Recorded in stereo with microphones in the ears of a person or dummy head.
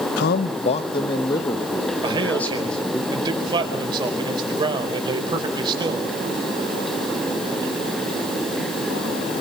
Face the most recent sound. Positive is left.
turn(degrees=-25)  # may be behind; listen again after turning